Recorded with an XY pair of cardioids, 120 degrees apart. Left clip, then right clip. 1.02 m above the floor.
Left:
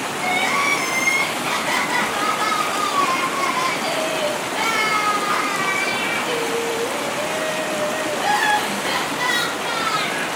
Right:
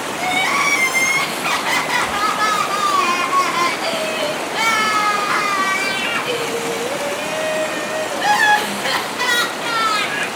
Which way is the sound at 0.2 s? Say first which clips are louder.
Right 2 dB; 35° right.